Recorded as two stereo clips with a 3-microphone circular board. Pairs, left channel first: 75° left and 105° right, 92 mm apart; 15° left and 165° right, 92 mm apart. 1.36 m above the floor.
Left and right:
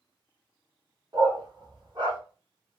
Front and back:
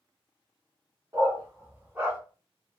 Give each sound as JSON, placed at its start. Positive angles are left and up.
{"t": 1.1, "sound": "a dog barking", "azimuth_deg": -125, "distance_m": 1.0}